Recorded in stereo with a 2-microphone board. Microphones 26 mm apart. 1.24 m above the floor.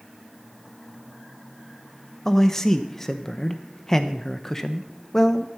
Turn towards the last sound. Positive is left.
turn(degrees=15)  # may be behind; listen again after turning